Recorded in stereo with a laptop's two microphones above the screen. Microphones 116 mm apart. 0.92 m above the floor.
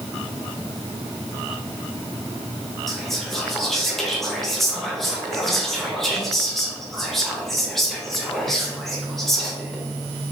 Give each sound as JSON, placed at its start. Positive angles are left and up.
{"t": 2.9, "sound": "whispering", "side_deg": 0, "distance_m": 0.7}